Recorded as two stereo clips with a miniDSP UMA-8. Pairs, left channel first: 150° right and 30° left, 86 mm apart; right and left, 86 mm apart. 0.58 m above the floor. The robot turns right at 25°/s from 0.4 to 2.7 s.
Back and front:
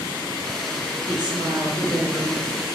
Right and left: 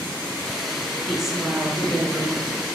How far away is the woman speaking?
About 1.7 m.